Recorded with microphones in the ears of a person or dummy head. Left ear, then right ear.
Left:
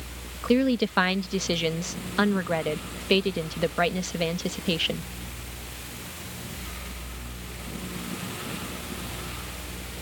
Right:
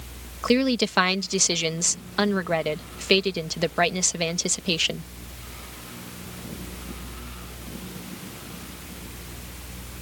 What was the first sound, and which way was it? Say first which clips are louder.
A woman speaking: right 2 dB; 70° right (ahead or behind).